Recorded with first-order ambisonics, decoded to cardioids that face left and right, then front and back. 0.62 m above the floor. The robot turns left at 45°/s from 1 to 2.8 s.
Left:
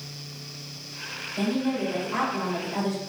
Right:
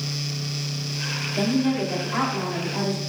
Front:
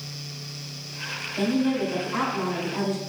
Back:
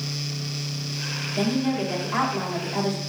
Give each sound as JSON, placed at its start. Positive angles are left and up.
{"t": 1.4, "sound": "a woman speaking", "azimuth_deg": -145, "distance_m": 1.0}